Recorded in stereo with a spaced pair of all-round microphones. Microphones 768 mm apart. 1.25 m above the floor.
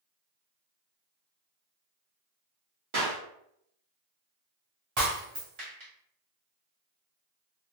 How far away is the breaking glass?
About 1.9 m.